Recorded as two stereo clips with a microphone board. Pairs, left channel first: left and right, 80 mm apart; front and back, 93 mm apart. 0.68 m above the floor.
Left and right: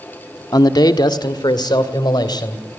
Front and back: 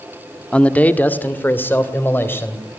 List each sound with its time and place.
0.5 s a man speaking: 75° left, 1.1 m; by 2.6 s 65° left, 3 m